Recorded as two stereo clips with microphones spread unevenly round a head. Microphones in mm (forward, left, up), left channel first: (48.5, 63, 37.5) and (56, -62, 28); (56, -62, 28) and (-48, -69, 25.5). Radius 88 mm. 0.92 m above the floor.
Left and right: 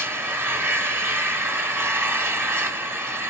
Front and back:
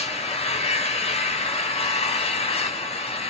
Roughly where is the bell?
No bell in this recording.